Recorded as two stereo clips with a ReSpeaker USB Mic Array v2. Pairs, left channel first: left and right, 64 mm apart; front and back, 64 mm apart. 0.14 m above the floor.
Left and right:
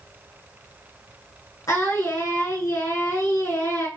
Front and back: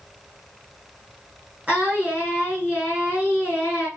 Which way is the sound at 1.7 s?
110° left.